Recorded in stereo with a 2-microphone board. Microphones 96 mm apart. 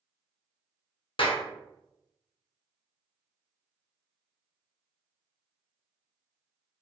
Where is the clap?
70° left (ahead or behind), 0.6 m.